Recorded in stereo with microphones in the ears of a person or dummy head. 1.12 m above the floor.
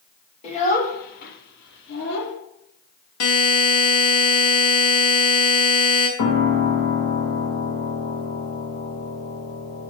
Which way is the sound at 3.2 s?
80° left.